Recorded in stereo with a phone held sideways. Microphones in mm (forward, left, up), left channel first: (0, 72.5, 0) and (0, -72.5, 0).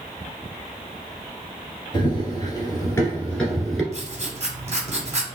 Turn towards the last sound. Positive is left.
turn(degrees=-50)  # may be behind; listen again after turning